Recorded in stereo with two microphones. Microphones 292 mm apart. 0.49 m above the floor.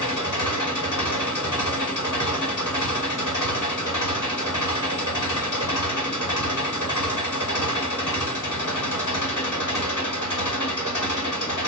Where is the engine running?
90° left, 1.3 m.